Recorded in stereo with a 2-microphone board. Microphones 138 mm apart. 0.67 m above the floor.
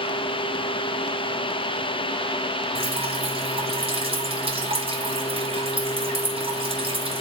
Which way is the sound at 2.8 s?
45° right (ahead or behind).